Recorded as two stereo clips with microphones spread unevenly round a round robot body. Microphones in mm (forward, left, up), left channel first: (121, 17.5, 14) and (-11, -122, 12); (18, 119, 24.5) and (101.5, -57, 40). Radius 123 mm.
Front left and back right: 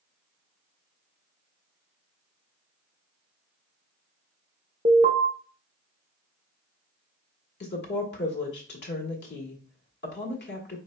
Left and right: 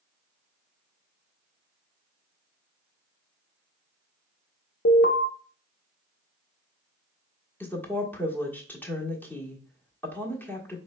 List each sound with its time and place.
4.8 s an alarm: 160° left, 0.7 m
7.6 s a woman speaking: 40° left, 1.5 m